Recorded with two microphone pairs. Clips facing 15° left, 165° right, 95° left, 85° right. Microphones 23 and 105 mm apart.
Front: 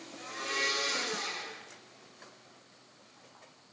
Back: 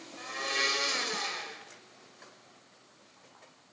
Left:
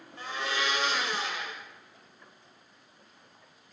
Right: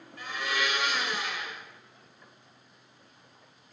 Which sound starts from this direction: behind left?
A blender, at 0.2 s.